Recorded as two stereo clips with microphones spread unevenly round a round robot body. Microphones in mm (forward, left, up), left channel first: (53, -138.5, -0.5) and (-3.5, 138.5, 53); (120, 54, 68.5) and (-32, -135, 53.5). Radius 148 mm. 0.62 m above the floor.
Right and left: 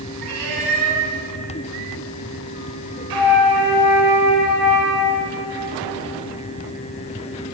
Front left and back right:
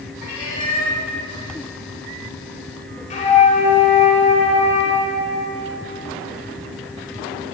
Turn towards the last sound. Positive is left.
turn(degrees=115)